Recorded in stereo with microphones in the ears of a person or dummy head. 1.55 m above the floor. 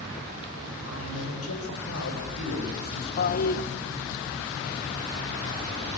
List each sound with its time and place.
0.9 s a man speaking: 80° left, 8 m
3.2 s a toilet flushing: 50° left (ahead or behind), 1.3 m